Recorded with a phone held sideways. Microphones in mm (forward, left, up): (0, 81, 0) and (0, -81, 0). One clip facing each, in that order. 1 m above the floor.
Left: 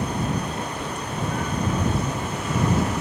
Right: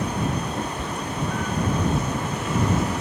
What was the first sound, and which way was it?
A cat meowing, 40° right (ahead or behind).